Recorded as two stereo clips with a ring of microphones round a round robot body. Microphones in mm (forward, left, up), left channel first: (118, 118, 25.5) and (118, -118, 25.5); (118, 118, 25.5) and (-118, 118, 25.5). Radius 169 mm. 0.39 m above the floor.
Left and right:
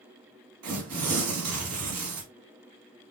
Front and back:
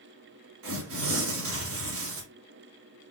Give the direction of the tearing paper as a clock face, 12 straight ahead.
4 o'clock.